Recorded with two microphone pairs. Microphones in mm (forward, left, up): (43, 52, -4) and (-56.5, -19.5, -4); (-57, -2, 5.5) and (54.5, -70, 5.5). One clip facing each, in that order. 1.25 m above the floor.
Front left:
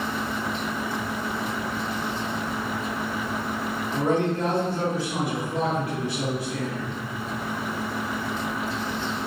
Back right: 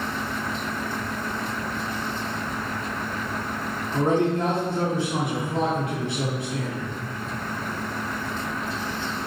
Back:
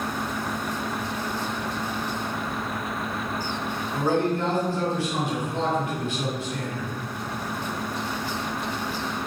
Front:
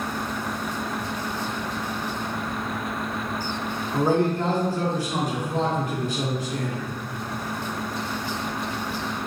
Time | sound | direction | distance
3.9 | a man speaking | 80° right | 0.9 m